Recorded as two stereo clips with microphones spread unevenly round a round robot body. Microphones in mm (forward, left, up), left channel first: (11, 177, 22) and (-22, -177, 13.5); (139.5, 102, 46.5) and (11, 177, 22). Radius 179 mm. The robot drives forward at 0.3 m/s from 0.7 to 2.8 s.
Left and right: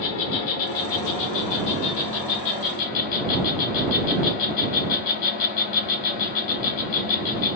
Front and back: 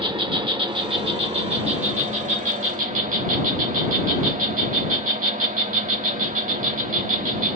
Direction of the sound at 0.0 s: 90° left.